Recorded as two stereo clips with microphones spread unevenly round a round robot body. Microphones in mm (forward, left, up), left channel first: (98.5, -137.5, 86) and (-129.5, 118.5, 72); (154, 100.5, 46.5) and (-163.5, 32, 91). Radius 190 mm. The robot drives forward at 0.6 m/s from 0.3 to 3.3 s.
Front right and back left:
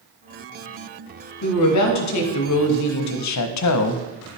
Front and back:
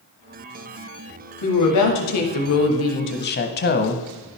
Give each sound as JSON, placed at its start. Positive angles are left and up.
{"t": 1.4, "sound": "a woman speaking", "azimuth_deg": -10, "distance_m": 1.8}